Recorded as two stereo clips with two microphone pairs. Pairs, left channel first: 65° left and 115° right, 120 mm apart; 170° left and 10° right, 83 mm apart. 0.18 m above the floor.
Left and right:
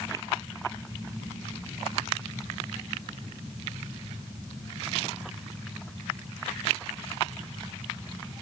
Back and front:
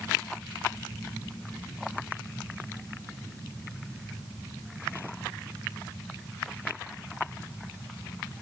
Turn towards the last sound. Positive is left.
No sound to turn to.